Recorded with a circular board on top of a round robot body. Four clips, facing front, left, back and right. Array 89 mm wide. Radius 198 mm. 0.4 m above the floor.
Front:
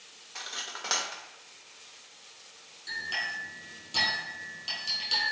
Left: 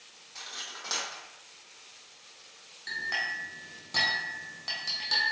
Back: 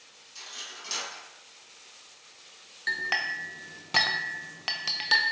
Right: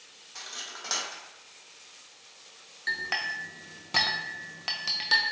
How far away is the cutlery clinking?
About 1.1 m.